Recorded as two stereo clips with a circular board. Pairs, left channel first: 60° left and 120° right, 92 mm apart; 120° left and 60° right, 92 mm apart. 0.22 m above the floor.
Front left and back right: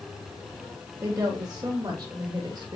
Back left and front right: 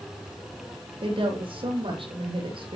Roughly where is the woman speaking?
Right.